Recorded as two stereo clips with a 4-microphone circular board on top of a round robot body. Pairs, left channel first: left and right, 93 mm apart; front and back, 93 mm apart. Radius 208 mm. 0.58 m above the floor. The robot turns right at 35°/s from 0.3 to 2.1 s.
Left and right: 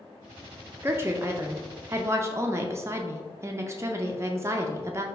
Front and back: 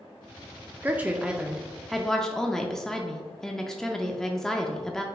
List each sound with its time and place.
0.8 s a woman speaking: 125° right, 0.6 m; by 5.0 s 80° right, 0.6 m